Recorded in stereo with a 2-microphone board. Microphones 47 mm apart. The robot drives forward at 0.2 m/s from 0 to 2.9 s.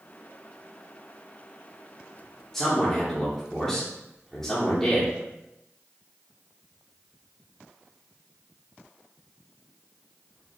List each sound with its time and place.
2.5 s a man speaking: 10° left (ahead or behind), 1.2 m